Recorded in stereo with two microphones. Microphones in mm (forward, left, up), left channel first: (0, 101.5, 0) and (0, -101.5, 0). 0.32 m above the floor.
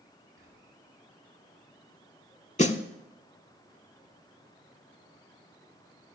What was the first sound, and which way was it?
Whispering, 80° right.